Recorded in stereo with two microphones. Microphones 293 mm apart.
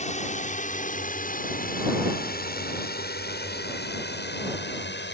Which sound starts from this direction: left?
A drone, at 0.0 s.